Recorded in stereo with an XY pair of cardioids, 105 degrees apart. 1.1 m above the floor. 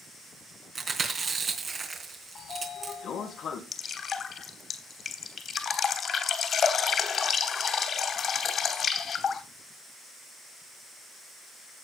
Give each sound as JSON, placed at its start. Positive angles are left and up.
{"t": 0.8, "sound": "chewing", "azimuth_deg": -40, "distance_m": 3.5}
{"t": 2.4, "sound": "a sliding door", "azimuth_deg": 65, "distance_m": 2.5}
{"t": 3.7, "sound": "dripping", "azimuth_deg": 50, "distance_m": 3.0}